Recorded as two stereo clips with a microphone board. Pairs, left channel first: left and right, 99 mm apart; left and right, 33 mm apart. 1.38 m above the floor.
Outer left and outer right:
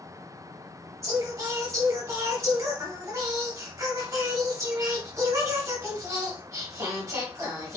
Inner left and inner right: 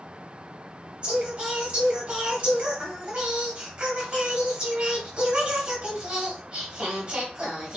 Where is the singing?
30° right (ahead or behind), 2.0 m.